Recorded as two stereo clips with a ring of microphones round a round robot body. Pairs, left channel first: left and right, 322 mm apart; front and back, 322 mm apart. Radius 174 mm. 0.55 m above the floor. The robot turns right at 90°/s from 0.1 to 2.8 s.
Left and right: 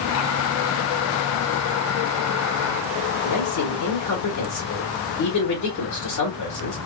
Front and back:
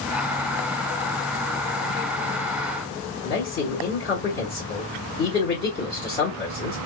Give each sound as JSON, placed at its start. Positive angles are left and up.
{"t": 3.2, "sound": "a man speaking", "azimuth_deg": 60, "distance_m": 1.4}